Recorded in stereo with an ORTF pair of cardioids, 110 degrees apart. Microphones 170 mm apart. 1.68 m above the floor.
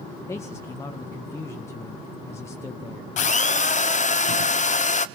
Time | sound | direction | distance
0.3 | a man speaking | 15° left | 1.9 m
3.2 | a drill | 45° left | 0.8 m